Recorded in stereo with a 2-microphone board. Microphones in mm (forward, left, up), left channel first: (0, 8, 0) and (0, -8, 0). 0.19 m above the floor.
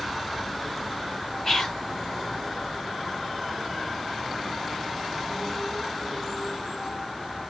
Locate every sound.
1.4 s whispering: 25° left (ahead or behind), 1.4 m